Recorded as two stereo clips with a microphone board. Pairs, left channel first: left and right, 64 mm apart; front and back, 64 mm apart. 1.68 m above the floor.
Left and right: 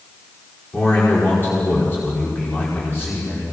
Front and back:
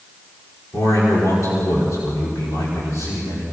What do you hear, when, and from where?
0.7 s a man speaking: 35° left, 5 m